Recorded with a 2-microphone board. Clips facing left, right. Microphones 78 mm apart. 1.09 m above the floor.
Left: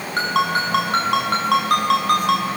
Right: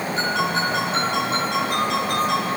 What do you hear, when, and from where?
0.2 s a ringtone: 65° left (ahead or behind), 5.5 m